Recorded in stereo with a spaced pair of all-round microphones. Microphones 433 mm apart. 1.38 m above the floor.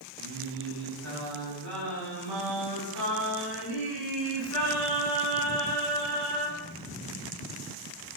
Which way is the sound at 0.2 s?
60° right (ahead or behind).